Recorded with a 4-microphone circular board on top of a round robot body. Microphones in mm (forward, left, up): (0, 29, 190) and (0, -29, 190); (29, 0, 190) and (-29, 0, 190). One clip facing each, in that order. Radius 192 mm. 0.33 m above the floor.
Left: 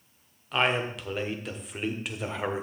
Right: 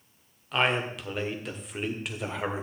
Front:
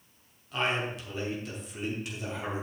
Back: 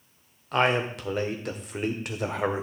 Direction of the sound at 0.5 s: Straight behind.